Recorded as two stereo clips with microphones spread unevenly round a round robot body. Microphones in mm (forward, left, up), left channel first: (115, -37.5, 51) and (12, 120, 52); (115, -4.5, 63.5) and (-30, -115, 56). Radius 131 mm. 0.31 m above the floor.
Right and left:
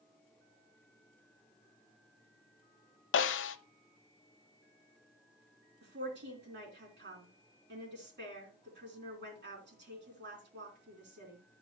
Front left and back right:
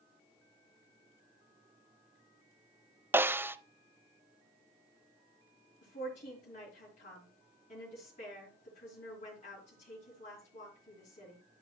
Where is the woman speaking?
95° left, 3 m.